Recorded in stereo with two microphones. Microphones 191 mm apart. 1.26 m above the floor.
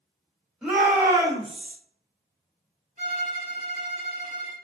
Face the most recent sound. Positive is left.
turn(degrees=-45)  # may be behind; listen again after turning